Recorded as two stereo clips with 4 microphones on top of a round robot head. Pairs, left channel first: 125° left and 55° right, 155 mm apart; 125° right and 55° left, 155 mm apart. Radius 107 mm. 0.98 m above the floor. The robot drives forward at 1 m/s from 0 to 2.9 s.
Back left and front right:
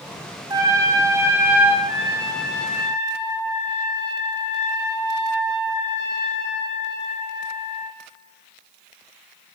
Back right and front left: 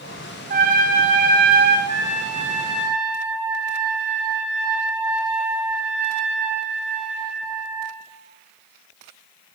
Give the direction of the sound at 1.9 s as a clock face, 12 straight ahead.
8 o'clock.